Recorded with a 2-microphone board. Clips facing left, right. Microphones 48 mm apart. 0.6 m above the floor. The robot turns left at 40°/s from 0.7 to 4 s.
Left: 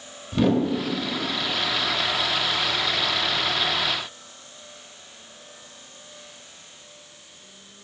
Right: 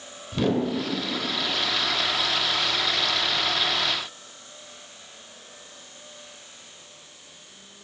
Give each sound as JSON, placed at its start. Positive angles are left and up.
{"t": 0.3, "sound": "a whoosh", "side_deg": 5, "distance_m": 0.6}